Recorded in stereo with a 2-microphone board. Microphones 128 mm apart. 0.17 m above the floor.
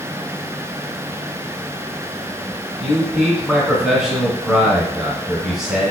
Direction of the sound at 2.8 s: 5° right (ahead or behind).